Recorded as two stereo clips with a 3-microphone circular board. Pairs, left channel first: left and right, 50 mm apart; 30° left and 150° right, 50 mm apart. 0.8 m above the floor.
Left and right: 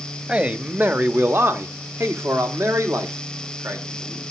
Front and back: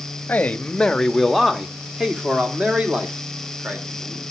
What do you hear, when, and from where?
0.3 s a man speaking: 30° right, 0.9 m; by 4.2 s 100° right, 2.5 m